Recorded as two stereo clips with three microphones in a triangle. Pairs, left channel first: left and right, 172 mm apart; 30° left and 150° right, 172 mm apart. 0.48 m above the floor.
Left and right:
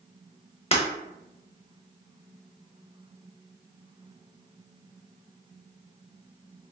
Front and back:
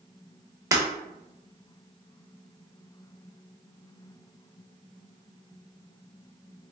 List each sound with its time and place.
0.7 s breaking glass: 145° left, 0.7 m